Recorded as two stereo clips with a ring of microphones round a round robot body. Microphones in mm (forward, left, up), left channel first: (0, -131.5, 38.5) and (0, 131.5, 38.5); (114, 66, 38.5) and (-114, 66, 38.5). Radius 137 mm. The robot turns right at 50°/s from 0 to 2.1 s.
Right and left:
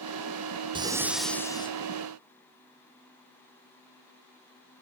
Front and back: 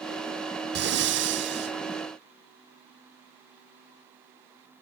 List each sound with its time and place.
0.8 s breathing: 155° left, 1.0 m; by 1.8 s 155° right, 1.0 m